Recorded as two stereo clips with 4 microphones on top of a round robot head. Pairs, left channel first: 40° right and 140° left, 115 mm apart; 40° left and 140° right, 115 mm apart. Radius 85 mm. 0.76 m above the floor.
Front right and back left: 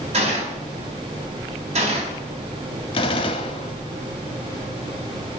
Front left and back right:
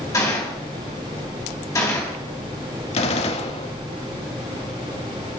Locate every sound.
0.1 s a gunshot: 105° left, 3.5 m
2.9 s a gunshot: 5° left, 0.8 m